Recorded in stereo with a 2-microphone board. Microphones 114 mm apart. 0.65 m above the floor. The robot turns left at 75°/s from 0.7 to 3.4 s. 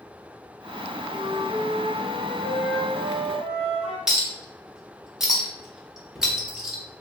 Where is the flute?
10° left, 1.0 m; by 4.0 s 165° right, 1.0 m.